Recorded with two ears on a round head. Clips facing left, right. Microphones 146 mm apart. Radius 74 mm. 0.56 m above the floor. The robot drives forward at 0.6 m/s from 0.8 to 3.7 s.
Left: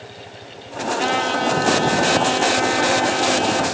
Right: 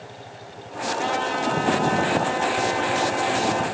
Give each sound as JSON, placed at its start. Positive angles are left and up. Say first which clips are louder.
{"t": 0.9, "sound": "a trumpet", "louder": "left 4 dB", "side_deg": 75, "distance_m": 6.0}